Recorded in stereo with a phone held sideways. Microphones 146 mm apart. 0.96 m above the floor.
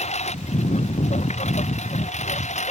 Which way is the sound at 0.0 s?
50° left (ahead or behind).